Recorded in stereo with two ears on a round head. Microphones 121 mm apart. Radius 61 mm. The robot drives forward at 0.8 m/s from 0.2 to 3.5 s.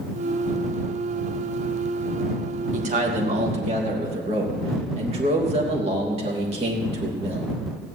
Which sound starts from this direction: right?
A man speaking, at 2.7 s.